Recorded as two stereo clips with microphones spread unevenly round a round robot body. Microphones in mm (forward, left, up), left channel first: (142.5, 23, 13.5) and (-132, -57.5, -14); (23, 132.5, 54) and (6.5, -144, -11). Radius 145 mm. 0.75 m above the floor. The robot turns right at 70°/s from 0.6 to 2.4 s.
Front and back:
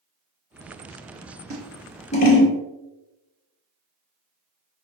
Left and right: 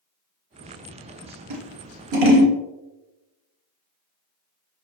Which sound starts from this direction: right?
Scissors, at 1.5 s.